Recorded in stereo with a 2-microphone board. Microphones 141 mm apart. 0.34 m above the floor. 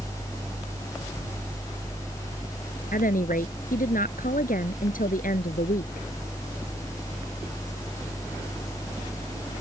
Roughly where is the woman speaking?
Left.